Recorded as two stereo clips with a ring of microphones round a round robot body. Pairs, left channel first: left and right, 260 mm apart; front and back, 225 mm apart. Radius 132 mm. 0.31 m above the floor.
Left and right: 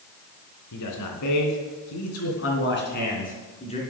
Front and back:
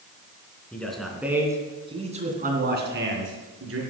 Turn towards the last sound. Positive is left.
turn(degrees=160)